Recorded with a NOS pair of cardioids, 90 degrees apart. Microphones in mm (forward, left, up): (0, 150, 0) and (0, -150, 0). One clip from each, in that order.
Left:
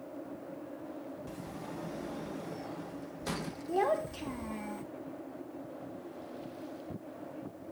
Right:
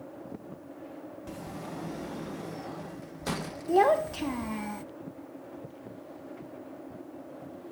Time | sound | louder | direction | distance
1.3 | a sliding door | right 3 dB | 15° right | 0.6 m
3.7 | a child speaking | right 8 dB | 30° right | 0.5 m